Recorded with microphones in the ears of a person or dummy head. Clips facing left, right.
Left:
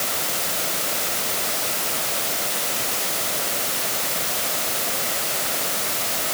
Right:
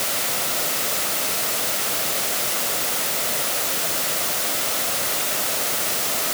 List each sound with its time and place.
Only background noise.